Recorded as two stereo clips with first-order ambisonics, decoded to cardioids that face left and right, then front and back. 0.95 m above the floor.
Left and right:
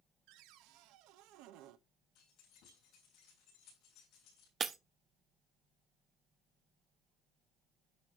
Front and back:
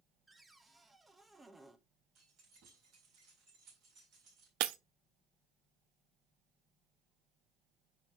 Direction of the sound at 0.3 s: 95° right.